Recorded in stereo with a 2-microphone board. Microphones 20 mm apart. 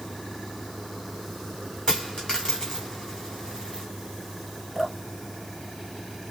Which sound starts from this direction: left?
A dropped coin, at 1.9 s.